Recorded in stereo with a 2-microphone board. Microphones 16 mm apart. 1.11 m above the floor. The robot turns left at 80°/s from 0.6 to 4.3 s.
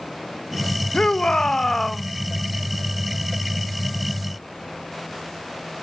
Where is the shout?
100° left, 1.4 m; by 2.0 s 10° left, 1.4 m.